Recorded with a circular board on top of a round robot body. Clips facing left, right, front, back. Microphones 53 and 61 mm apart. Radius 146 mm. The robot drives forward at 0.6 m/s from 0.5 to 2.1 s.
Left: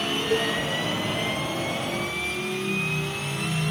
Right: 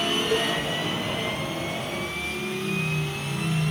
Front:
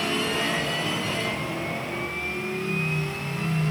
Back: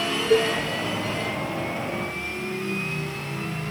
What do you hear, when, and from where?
0.3 s a cowbell: 170° left